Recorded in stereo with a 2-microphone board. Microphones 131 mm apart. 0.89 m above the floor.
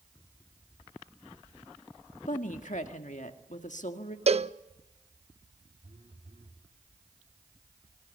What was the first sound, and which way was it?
A woman speaking, 70° left (ahead or behind).